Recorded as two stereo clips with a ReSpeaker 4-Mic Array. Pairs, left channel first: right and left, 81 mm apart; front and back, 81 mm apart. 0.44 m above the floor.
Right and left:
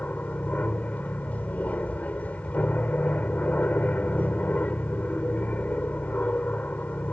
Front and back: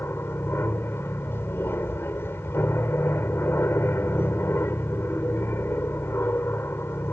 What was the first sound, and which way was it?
An aircraft, 35° right.